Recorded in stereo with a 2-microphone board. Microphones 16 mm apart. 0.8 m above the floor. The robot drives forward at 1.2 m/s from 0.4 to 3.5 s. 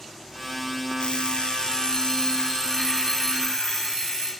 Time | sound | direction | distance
1.0 | an alarm clock | 85° left | 1.1 m